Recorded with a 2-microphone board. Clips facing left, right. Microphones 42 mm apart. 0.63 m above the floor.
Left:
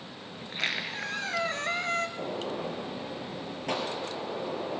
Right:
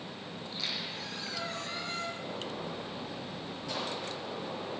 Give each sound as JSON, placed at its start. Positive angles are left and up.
{"t": 0.4, "sound": "a squeak", "side_deg": 60, "distance_m": 1.0}
{"t": 2.2, "sound": "a gunshot", "side_deg": 60, "distance_m": 3.5}